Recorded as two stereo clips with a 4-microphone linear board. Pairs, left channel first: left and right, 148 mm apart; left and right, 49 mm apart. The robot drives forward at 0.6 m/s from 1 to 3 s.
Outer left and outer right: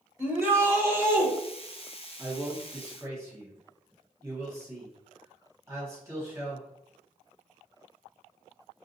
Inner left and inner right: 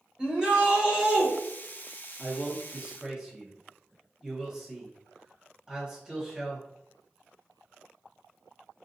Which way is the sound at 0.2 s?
15° right (ahead or behind).